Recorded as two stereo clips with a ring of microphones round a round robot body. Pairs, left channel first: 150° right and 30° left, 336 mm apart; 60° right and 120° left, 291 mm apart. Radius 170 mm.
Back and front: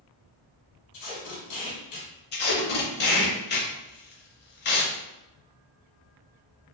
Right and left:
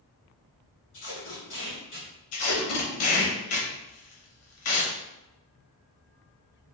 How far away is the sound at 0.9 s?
About 1.1 m.